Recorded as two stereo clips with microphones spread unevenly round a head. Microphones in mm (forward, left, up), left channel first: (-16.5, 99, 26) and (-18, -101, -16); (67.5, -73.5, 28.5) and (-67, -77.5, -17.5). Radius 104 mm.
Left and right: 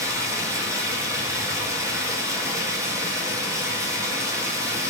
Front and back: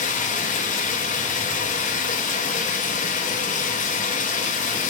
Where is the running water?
10° right, 1.9 m.